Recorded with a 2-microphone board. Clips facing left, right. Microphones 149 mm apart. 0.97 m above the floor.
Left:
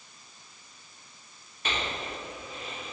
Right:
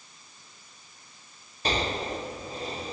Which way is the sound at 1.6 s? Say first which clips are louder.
Right 6 dB; 35° right (ahead or behind).